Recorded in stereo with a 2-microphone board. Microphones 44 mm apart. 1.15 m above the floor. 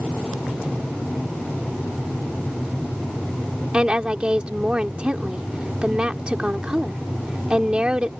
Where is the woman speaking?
20° right (ahead or behind).